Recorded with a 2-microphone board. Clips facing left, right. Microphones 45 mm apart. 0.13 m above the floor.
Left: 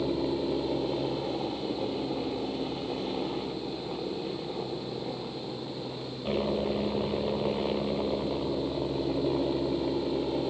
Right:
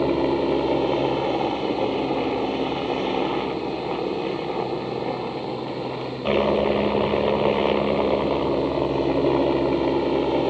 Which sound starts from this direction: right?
A helicopter, at 0.0 s.